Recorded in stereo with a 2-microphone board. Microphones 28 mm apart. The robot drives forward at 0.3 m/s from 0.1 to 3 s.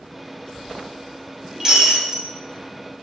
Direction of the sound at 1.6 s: 20° right (ahead or behind).